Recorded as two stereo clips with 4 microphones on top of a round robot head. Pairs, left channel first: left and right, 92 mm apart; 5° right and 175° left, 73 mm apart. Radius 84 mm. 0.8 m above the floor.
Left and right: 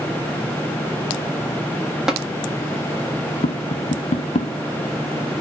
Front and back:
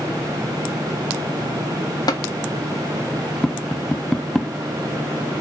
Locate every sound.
2.1 s tapping: 5° right, 1.4 m
3.4 s tapping: 80° left, 0.7 m